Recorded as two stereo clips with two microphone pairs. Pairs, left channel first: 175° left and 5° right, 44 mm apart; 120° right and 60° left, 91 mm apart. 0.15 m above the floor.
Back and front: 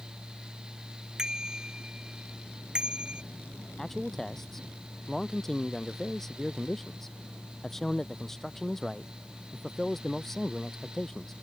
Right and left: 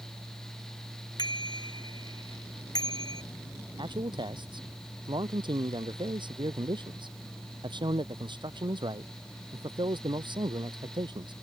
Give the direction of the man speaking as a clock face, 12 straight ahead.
9 o'clock.